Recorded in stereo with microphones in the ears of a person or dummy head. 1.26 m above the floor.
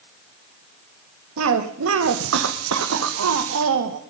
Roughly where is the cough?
Right.